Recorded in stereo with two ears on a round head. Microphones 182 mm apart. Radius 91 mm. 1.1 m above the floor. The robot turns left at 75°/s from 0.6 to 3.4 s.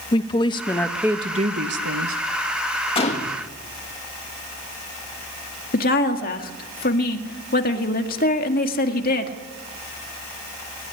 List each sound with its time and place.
0.1 s a woman speaking: 25° left, 1.3 m; by 2.2 s 95° right, 1.3 m
3.0 s a gunshot: 150° left, 1.8 m; by 3.4 s 120° left, 1.8 m
5.7 s a woman speaking: 45° left (ahead or behind), 2 m